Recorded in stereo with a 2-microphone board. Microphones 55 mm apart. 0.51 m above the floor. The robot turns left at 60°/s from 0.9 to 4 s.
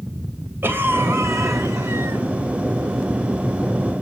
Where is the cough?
50° right, 2.5 m; by 2.2 s 130° right, 2.5 m.